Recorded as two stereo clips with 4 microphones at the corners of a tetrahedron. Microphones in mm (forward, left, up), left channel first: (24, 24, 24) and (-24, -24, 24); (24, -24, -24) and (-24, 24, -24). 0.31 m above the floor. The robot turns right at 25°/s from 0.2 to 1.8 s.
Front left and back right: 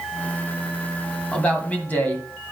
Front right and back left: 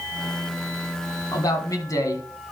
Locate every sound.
1.3 s a man speaking: 30° right, 1.7 m; by 2.2 s 20° right, 1.7 m